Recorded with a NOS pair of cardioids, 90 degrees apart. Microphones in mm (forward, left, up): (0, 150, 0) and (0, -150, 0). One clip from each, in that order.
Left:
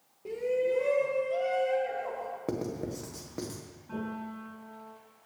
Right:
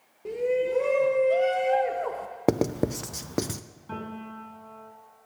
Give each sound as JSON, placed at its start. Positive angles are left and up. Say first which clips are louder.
{"t": 0.2, "sound": "a shout", "louder": "right 3 dB", "azimuth_deg": -25, "distance_m": 1.2}
{"t": 2.5, "sound": "writing", "louder": "right 13 dB", "azimuth_deg": -60, "distance_m": 0.8}
{"t": 3.9, "sound": "a piano", "louder": "right 1 dB", "azimuth_deg": -60, "distance_m": 6.5}